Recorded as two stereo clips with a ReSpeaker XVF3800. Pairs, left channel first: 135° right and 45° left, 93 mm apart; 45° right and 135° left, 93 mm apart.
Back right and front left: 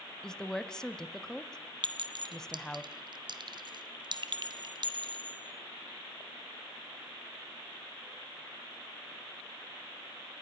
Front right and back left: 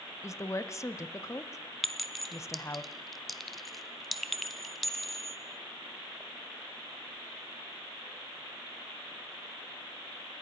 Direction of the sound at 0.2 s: 60° right.